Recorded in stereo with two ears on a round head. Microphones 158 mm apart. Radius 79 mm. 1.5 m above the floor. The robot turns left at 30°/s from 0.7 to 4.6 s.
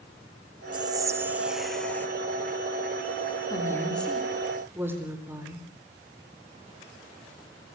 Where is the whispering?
150° right, 1.6 m; by 2.1 s 170° left, 1.6 m.